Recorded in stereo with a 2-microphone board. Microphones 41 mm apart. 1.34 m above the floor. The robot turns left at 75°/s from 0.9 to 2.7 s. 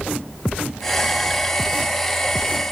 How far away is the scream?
No scream in this recording.